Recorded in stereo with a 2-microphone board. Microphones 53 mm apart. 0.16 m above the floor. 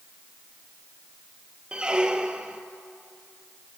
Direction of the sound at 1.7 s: 15° right (ahead or behind).